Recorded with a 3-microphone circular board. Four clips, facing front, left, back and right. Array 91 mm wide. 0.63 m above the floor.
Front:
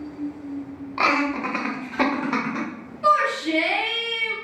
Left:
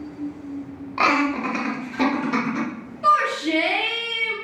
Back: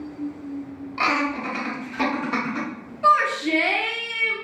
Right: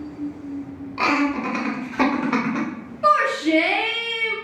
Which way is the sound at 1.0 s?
50° left.